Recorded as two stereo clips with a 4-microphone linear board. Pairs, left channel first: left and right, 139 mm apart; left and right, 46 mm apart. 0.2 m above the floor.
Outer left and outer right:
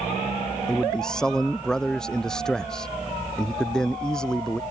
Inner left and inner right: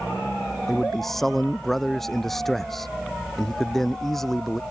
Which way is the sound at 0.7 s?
5° left (ahead or behind).